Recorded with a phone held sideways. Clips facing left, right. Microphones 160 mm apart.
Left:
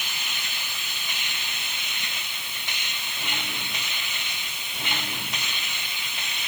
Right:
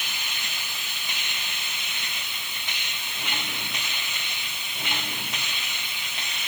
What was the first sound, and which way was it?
Only background noise.